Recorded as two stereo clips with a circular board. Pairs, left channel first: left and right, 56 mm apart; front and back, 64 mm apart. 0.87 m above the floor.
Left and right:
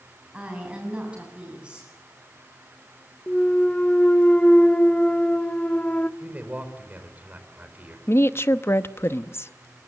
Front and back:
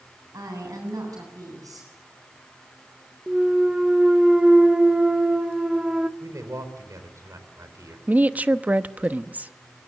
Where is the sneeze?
No sneeze in this recording.